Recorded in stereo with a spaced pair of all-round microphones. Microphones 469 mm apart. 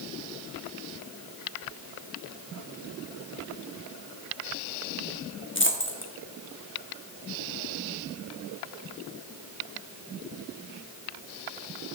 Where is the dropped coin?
25° left (ahead or behind), 1.0 m.